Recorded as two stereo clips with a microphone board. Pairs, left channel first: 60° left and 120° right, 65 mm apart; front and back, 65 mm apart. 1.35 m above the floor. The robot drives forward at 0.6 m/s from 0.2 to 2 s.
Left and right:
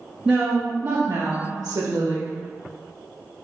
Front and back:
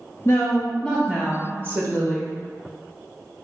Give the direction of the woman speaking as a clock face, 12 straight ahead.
2 o'clock.